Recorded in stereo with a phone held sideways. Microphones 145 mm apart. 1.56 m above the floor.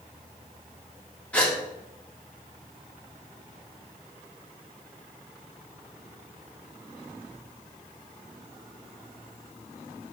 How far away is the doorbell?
I don't hear a doorbell.